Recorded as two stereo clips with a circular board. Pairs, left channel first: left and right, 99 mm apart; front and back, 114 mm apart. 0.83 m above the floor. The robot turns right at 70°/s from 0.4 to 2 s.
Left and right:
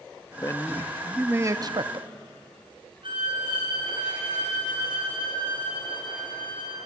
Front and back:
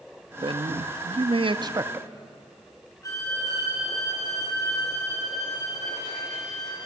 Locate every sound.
0.4 s a man speaking: 140° left, 0.7 m; by 2.1 s 105° right, 0.7 m
3.0 s a violin: 60° right, 4.5 m